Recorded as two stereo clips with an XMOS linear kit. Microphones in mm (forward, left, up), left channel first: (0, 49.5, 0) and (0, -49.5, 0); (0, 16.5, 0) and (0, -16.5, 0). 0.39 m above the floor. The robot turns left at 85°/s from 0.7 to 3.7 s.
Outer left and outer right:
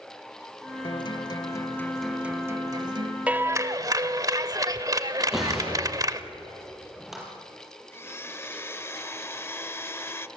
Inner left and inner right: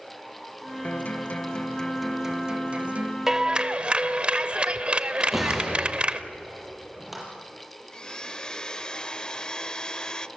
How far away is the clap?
About 1.0 m.